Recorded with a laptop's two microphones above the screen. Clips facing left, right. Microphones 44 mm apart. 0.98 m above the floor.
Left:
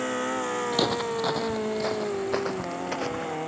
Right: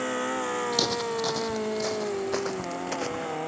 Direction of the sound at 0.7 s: 25° left (ahead or behind).